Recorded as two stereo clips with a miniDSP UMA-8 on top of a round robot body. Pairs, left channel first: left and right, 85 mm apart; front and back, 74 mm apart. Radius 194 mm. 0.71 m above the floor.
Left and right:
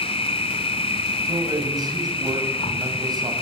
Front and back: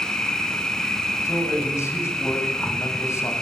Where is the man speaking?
50° right, 7.5 m.